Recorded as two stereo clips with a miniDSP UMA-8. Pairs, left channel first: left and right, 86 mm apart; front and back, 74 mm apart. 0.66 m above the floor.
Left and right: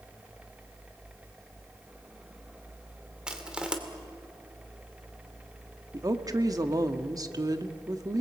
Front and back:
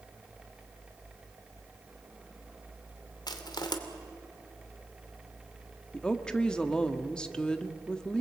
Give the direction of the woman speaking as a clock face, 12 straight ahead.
2 o'clock.